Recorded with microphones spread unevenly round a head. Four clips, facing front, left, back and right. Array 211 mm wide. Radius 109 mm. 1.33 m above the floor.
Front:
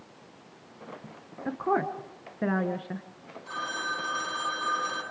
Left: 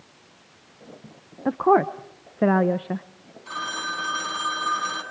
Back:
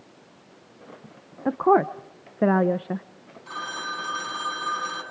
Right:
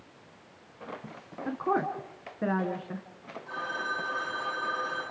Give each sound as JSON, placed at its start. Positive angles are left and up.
{"t": 1.4, "sound": "a woman speaking", "azimuth_deg": 150, "distance_m": 0.7}
{"t": 3.5, "sound": "a phone ringing", "azimuth_deg": 110, "distance_m": 6.5}